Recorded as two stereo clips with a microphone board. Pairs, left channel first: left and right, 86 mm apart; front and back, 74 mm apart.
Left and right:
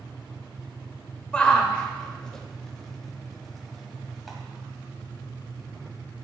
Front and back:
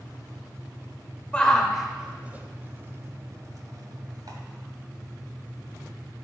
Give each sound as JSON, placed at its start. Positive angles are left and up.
{"t": 1.3, "sound": "a shout", "azimuth_deg": 40, "distance_m": 0.8}